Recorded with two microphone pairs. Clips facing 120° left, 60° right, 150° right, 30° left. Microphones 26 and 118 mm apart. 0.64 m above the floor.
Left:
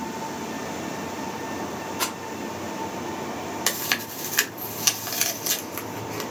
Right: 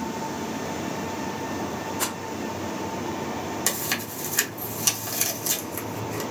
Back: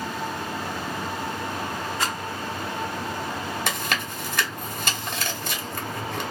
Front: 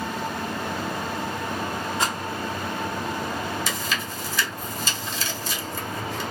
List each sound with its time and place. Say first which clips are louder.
2.0 s a rattle: left 3 dB, front 2 dB; 95° left, 1.7 m
3.7 s chewing: left 5 dB, back 1 dB; 175° right, 0.7 m